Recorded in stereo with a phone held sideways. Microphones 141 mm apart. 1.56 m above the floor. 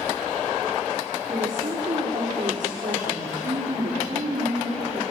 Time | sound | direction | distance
1.3 | a woman speaking | 75° right (ahead or behind) | 4.5 m